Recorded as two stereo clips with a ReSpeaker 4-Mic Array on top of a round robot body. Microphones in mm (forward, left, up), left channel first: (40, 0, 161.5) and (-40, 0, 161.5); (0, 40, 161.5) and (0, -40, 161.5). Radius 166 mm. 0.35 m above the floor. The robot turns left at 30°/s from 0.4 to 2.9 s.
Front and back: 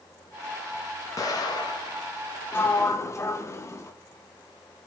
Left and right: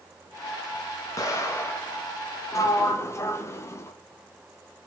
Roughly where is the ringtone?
I don't hear a ringtone.